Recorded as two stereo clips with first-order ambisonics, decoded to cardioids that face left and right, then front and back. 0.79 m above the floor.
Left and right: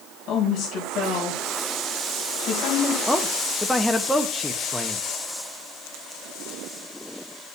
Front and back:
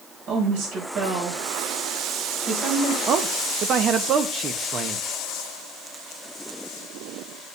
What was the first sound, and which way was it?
A woman speaking, 145° left.